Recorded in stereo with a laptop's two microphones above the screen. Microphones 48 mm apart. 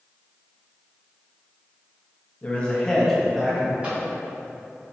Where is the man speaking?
30° left (ahead or behind), 0.8 m; by 3.7 s 5° right (ahead or behind), 1.1 m.